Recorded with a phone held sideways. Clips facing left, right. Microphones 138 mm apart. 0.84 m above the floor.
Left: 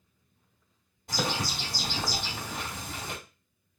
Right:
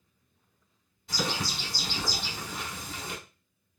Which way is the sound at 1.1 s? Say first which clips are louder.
Left 1 dB; 50° left (ahead or behind).